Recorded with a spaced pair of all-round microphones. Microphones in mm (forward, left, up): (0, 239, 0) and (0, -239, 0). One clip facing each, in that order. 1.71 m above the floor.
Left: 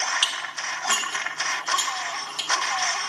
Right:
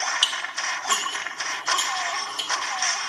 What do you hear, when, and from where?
0.2 s dishes clattering: 30° left (ahead or behind), 1.0 m